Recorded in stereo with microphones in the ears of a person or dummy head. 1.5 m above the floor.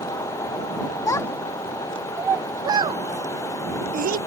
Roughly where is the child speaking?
Centre.